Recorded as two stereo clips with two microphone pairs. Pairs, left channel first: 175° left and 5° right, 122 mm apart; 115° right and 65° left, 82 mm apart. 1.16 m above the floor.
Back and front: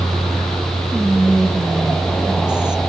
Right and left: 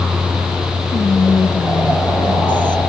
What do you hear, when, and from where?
0.9 s whispering: 90° right, 0.5 m